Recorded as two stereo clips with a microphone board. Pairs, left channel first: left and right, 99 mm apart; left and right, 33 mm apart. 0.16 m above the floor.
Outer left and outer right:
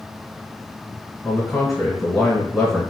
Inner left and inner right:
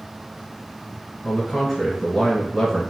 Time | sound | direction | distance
1.2 | a man speaking | centre (ahead or behind) | 1.4 m